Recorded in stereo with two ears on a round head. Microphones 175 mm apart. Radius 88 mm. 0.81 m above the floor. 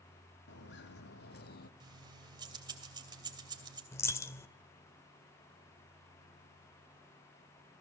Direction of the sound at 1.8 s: 25° right (ahead or behind).